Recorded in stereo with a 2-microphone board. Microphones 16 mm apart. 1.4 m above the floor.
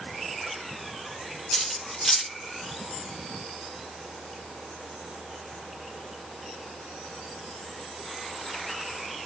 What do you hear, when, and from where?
1.5 s cutlery clinking: 20° left (ahead or behind), 1.2 m